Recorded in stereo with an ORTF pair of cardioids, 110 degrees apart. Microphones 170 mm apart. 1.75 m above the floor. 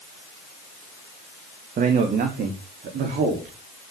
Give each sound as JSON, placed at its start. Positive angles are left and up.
{"t": 1.8, "sound": "a man speaking", "azimuth_deg": -55, "distance_m": 2.5}